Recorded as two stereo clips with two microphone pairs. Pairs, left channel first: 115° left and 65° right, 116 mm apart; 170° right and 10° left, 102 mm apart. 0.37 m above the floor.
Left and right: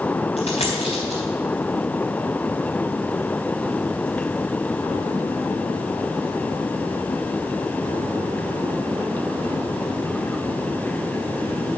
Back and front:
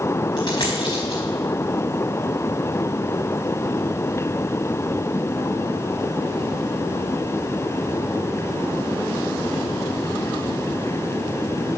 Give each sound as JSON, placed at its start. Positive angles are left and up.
{"t": 0.4, "sound": "a dropped coin", "azimuth_deg": 145, "distance_m": 4.5}